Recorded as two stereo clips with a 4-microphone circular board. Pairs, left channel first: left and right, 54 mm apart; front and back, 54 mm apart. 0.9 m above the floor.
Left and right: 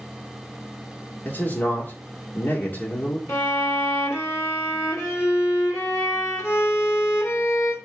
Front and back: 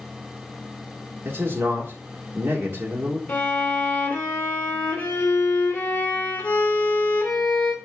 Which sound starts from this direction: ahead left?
A violin, at 3.3 s.